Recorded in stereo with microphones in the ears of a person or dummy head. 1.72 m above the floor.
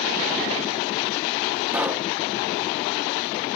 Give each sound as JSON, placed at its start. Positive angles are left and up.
{"t": 1.7, "sound": "a pop", "side_deg": -10, "distance_m": 1.4}